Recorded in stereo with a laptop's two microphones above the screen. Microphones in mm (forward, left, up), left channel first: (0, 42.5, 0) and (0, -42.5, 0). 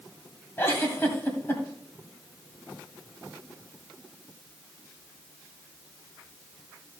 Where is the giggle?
30° left (ahead or behind), 1.6 m.